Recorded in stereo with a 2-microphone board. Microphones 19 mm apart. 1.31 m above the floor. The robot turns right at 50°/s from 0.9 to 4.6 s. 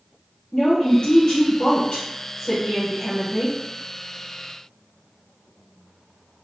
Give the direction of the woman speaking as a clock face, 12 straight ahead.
10 o'clock.